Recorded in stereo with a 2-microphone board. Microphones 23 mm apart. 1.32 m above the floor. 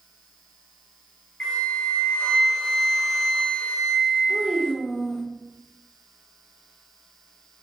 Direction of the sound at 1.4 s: 45° left (ahead or behind).